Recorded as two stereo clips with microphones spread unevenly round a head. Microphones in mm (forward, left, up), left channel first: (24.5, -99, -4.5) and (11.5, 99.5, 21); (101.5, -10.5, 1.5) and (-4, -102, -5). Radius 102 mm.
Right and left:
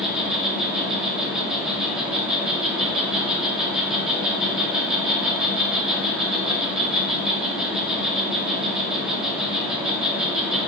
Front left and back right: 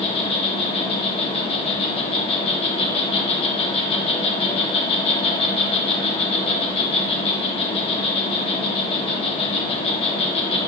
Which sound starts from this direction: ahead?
An insect, at 0.0 s.